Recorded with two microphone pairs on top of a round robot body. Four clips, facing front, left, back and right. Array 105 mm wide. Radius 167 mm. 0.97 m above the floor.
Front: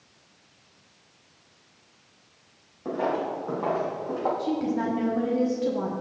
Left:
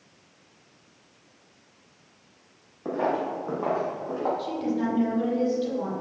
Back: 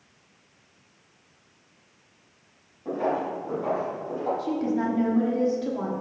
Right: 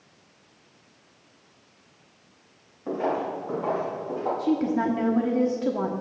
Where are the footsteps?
70° left, 2.5 m; by 4.3 s 35° left, 3 m.